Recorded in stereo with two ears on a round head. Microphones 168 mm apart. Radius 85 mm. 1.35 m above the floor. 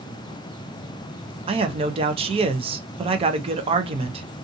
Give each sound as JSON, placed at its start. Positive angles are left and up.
{"t": 1.5, "sound": "a man speaking", "side_deg": -30, "distance_m": 0.6}